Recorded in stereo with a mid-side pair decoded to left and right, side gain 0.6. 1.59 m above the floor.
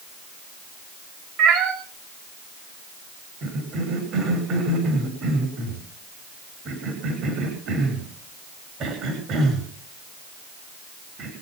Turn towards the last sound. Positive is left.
turn(degrees=-55)